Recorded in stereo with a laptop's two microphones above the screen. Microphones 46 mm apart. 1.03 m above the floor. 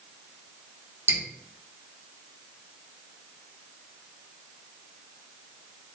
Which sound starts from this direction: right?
Dripping, at 1.1 s.